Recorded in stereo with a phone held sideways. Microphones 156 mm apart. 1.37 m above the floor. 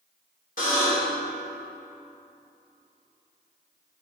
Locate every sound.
0.6 s a buzzer: 60° left (ahead or behind), 2.5 m